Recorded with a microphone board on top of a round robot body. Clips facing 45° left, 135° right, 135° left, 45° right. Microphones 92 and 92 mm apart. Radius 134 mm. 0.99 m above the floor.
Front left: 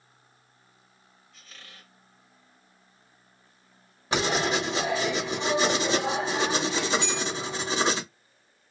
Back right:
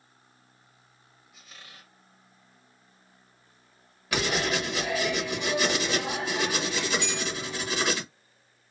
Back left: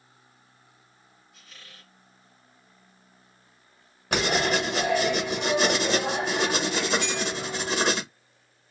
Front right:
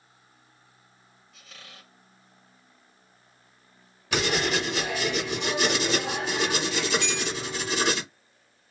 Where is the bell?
55° left, 0.9 m.